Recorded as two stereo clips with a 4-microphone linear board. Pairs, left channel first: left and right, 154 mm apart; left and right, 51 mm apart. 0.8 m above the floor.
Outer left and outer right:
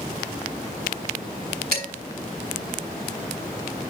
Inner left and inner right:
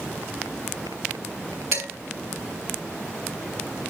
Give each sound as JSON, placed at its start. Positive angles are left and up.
{"t": 1.7, "sound": "dishes clattering", "side_deg": -80, "distance_m": 4.0}